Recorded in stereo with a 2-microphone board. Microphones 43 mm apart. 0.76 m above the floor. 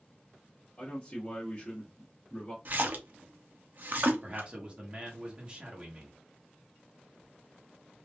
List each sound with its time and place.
0.8 s a man speaking: 30° left (ahead or behind), 1.3 m
2.6 s a splash: 50° right (ahead or behind), 0.6 m
4.2 s a man speaking: 30° right (ahead or behind), 1.2 m